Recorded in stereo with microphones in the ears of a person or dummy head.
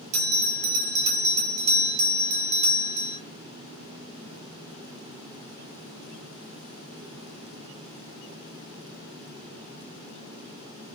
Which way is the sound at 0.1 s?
45° right (ahead or behind).